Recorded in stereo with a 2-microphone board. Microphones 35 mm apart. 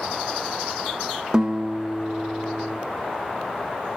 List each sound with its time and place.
1.3 s a guitar: 20° right (ahead or behind), 1.8 m